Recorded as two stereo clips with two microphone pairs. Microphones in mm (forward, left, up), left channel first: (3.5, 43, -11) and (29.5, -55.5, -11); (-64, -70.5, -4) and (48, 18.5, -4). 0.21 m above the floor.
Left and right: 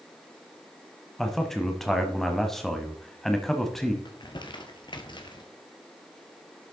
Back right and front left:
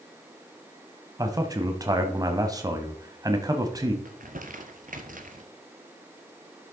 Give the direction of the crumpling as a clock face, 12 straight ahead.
10 o'clock.